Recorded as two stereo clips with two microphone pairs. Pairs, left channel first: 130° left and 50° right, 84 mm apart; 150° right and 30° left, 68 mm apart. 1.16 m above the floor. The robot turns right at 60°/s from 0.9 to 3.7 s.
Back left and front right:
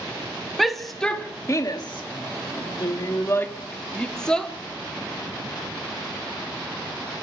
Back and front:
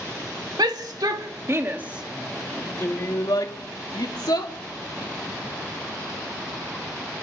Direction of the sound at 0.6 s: 40° left.